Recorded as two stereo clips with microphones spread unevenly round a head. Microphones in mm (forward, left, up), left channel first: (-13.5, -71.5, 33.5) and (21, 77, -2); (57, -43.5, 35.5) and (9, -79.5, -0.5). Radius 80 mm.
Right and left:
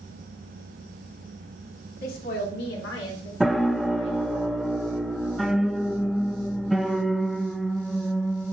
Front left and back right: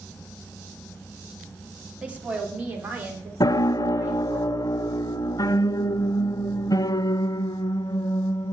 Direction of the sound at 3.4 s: 5° right.